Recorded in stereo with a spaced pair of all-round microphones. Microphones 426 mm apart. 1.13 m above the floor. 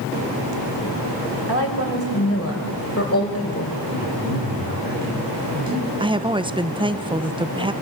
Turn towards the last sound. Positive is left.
turn(degrees=-10)  # may be behind; listen again after turning